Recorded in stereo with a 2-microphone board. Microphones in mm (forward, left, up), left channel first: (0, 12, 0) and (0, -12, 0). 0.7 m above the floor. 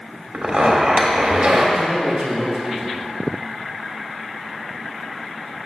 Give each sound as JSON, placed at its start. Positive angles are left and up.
{"t": 0.3, "sound": "a zipper", "side_deg": -70, "distance_m": 1.4}
{"t": 1.8, "sound": "a man speaking", "side_deg": -55, "distance_m": 3.0}